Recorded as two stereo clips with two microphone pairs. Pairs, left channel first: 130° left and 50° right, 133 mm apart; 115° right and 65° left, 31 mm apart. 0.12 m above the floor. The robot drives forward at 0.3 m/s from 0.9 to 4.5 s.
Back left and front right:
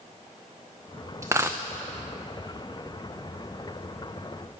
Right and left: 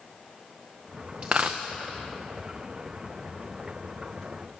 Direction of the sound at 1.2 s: 15° left.